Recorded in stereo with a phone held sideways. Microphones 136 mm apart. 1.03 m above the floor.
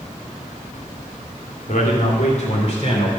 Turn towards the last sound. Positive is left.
turn(degrees=45)  # may be behind; listen again after turning